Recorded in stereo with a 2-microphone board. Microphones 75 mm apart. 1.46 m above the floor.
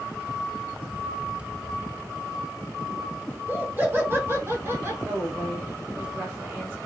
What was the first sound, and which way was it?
Laughter, 25° right (ahead or behind).